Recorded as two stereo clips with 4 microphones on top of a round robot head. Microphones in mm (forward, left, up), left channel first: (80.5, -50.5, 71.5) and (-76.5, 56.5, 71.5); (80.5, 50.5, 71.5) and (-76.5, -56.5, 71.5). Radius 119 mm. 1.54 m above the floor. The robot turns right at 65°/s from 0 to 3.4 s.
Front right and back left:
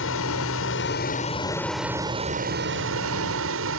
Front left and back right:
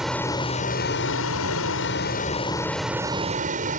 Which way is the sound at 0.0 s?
60° right.